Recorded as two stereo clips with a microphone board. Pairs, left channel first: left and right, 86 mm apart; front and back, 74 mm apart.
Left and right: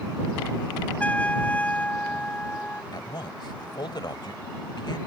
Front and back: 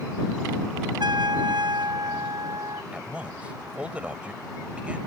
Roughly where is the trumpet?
Behind.